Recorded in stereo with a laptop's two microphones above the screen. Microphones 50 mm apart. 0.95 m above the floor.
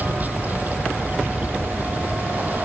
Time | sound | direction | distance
0.0 | running water | 35° right (ahead or behind) | ?